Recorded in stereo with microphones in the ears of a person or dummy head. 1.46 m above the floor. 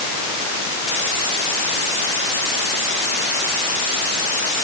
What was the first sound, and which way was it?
Only background noise.